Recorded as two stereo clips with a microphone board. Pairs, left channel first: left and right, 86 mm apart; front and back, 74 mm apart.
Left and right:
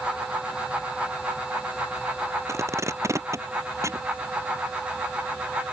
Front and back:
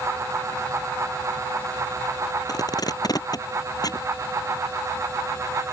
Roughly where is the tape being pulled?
Ahead right.